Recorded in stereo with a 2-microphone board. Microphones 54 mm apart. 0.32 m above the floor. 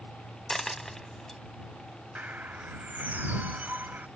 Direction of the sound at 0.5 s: 5° left (ahead or behind).